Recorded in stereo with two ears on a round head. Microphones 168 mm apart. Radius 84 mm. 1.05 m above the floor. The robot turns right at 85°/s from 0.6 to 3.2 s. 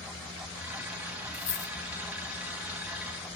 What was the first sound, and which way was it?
A dropped coin, 75° left (ahead or behind).